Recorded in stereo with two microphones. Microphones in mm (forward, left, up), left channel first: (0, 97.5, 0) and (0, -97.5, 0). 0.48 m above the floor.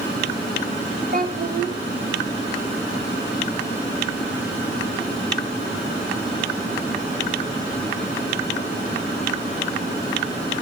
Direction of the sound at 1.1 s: 50° right (ahead or behind).